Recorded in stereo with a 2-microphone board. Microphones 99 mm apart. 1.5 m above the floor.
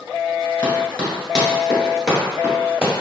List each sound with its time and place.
0.6 s running footsteps: 15° left (ahead or behind), 1.5 m; by 2.9 s 15° right (ahead or behind), 1.7 m